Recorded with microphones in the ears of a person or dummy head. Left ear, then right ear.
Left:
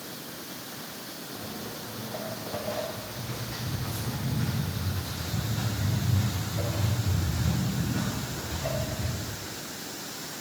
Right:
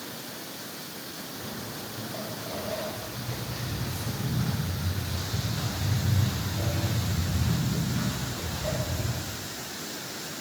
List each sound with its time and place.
1.3 s footsteps: 20° left (ahead or behind), 3.5 m; by 9.0 s centre (ahead or behind), 8.5 m